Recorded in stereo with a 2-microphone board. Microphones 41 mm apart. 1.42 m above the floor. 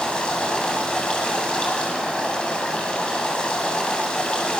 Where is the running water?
25° left (ahead or behind), 9 m.